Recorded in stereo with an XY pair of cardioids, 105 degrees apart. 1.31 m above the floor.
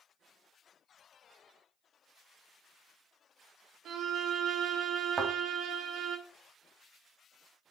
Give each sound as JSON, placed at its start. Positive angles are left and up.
{"t": 3.9, "sound": "a violin", "azimuth_deg": -60, "distance_m": 1.4}
{"t": 5.2, "sound": "a thud", "azimuth_deg": -30, "distance_m": 2.5}